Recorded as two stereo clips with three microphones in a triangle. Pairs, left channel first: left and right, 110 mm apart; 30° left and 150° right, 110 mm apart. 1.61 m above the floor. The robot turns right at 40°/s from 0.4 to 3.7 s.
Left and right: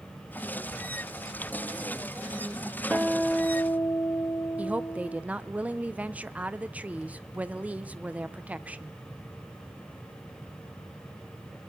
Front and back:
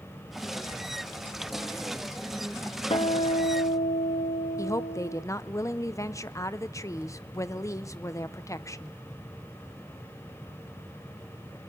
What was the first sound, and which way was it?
A guitar, 10° right.